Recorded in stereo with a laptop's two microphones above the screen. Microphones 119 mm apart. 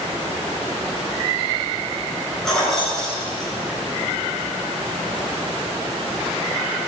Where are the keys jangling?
Centre (ahead or behind), 3.5 m.